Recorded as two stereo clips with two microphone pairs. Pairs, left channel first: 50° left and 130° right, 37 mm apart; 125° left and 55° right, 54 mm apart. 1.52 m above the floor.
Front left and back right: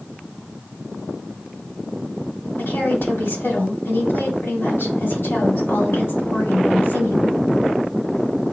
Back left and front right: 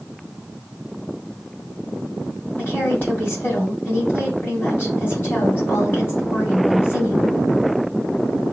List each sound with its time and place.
2.6 s a woman speaking: 70° left, 3 m